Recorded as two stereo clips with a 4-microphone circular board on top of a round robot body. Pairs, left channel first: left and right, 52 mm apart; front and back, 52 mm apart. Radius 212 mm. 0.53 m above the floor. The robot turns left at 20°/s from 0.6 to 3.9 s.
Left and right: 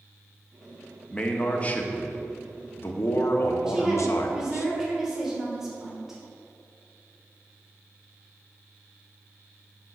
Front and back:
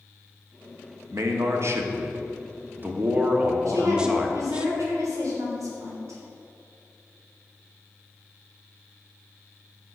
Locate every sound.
1.1 s a man speaking: 160° left, 1.3 m; by 4.7 s 105° left, 1.3 m
3.7 s a woman speaking: 170° right, 3 m; by 6.2 s 175° right, 3 m